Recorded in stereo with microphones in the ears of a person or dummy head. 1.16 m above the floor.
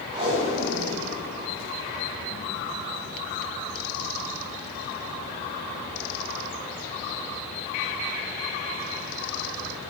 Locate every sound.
0.1 s tape being pulled: 30° right (ahead or behind), 4.5 m